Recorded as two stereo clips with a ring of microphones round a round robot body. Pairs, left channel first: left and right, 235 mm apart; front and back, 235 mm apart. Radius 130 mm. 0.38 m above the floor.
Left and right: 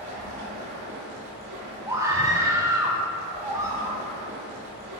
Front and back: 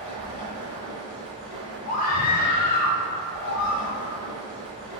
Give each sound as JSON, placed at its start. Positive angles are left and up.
{"t": 0.0, "sound": "running water", "azimuth_deg": -110, "distance_m": 2.5}
{"t": 1.9, "sound": "a scream", "azimuth_deg": -25, "distance_m": 1.0}